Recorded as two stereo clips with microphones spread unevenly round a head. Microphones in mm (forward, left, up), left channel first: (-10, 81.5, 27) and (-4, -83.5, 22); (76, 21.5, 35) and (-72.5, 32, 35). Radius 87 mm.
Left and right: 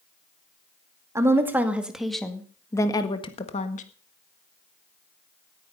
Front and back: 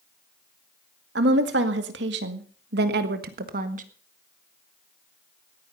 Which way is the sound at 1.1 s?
160° right.